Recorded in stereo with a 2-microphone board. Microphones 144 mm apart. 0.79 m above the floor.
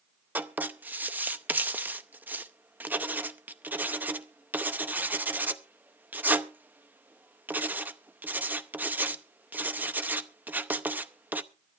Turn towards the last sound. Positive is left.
turn(degrees=-15)  # may be behind; listen again after turning